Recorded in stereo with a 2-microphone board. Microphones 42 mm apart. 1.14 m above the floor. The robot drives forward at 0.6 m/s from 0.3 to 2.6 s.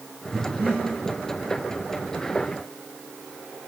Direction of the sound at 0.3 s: 55° right (ahead or behind).